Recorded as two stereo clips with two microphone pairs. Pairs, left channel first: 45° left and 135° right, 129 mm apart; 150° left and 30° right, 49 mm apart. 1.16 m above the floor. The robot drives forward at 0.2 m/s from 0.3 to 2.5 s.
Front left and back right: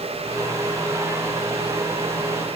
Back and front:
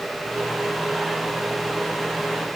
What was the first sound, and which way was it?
Only background noise.